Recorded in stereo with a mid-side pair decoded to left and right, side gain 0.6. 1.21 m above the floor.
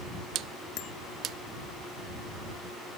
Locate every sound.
0.8 s a bicycle bell: 60° left